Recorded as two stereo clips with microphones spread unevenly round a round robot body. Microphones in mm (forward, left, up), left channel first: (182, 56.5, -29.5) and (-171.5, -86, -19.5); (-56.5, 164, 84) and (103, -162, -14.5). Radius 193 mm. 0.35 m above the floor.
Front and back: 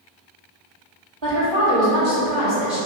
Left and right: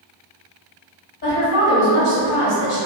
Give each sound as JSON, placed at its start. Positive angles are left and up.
{"t": 1.2, "sound": "a woman speaking", "azimuth_deg": 180, "distance_m": 2.0}